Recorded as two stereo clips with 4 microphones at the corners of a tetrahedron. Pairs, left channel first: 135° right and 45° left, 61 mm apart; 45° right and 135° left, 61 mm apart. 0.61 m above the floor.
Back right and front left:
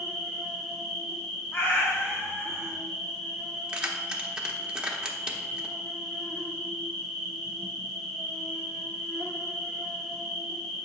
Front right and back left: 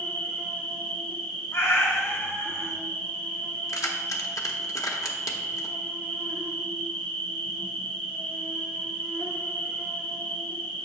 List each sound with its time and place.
0.0 s an insect: 50° right, 1.4 m
1.5 s a cat meowing: 85° right, 1.2 m
3.7 s keys jangling: 30° right, 0.8 m